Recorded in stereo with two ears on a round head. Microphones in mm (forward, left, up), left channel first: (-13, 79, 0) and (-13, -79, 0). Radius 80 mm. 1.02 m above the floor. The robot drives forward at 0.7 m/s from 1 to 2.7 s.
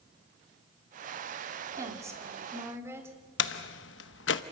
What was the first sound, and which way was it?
A woman speaking, 20° right (ahead or behind).